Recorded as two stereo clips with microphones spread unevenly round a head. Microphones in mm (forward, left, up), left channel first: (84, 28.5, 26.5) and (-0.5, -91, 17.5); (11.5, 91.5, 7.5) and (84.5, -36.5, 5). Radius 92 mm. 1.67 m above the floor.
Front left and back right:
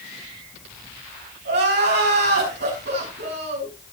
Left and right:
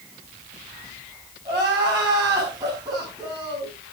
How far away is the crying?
About 5.5 m.